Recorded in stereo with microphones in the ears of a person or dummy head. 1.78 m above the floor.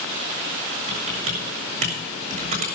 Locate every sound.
0.9 s typing on a keyboard: 40° right (ahead or behind), 2 m